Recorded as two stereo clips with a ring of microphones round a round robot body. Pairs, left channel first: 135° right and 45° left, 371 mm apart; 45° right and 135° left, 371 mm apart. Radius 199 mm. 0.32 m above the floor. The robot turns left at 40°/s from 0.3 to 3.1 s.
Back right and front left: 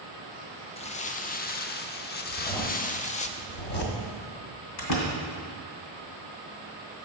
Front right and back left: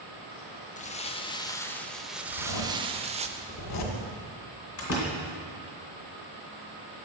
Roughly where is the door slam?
Right.